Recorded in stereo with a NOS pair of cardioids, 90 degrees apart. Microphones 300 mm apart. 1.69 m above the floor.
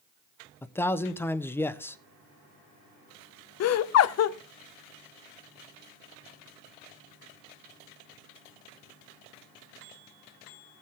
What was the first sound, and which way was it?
A man speaking, 10° left.